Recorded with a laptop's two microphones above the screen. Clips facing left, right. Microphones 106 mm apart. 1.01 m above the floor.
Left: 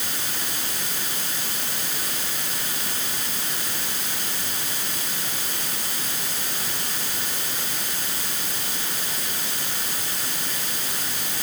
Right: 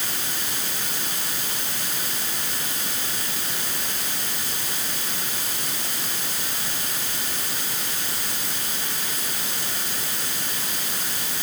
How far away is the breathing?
I don't hear breathing.